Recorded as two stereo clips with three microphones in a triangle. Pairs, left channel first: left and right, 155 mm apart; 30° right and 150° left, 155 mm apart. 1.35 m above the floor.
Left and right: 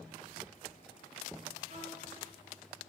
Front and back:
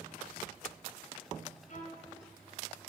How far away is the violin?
About 2 m.